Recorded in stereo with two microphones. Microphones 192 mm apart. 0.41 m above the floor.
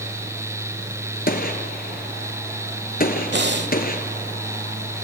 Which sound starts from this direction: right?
Breathing, at 3.3 s.